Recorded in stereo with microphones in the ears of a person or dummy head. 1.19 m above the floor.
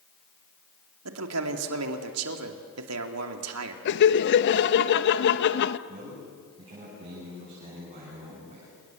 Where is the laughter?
55° left (ahead or behind), 1.1 m.